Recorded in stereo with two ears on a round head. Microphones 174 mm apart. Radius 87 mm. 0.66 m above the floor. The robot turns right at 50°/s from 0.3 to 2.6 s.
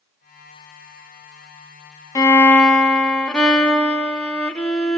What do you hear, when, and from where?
2.1 s a violin: 15° left (ahead or behind), 0.7 m; by 5.0 s 5° left (ahead or behind), 0.7 m